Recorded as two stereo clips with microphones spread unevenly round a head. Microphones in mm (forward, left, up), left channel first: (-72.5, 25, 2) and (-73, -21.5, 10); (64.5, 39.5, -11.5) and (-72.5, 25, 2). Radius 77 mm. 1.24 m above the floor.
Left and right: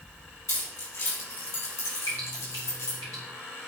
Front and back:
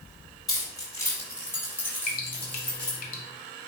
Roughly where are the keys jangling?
Left.